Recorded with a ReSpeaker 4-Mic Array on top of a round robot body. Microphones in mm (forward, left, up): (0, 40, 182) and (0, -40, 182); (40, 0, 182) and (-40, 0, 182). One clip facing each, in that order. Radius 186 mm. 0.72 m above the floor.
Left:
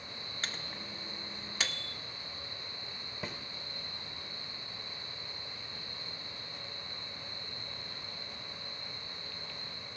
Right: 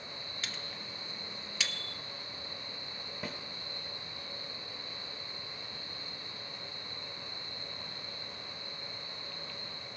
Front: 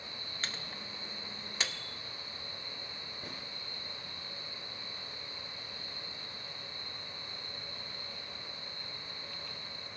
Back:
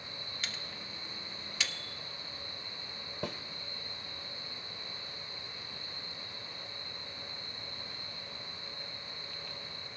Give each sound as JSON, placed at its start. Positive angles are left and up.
{"t": 0.4, "sound": "a microwave", "azimuth_deg": 45, "distance_m": 1.1}
{"t": 3.2, "sound": "a snare drum", "azimuth_deg": -175, "distance_m": 0.6}